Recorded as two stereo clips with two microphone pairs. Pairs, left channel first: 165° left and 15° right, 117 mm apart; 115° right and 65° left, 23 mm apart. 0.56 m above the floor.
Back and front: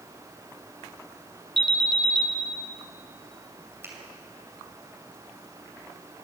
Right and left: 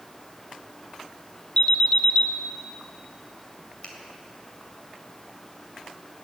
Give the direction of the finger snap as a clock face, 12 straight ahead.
3 o'clock.